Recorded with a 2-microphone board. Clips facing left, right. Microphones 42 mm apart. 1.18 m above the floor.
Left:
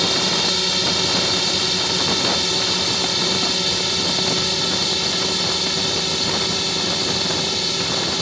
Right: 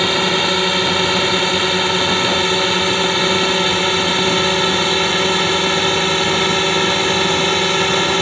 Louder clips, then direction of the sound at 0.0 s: Right 5 dB; 30° right (ahead or behind).